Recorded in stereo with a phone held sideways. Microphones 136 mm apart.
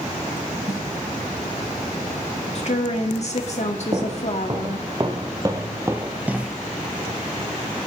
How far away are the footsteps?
About 2 m.